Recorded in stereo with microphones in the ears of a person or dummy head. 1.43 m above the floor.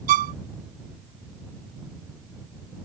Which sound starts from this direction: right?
A violin, at 0.1 s.